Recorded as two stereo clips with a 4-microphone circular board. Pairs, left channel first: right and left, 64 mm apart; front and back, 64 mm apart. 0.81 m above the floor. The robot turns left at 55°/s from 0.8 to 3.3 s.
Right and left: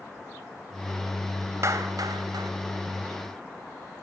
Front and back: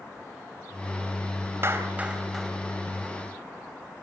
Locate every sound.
1.6 s a clap: 130° left, 3.5 m; by 2.5 s 85° left, 3.5 m